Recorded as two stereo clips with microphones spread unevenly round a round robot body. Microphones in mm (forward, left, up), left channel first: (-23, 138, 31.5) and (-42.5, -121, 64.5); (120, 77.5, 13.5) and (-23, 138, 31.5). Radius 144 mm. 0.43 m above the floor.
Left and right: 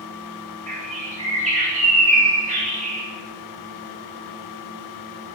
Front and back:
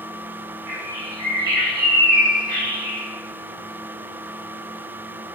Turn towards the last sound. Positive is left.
turn(degrees=-155)